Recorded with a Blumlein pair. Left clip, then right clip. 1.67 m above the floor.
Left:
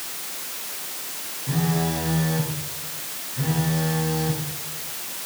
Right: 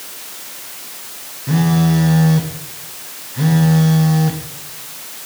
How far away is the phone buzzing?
About 1.6 m.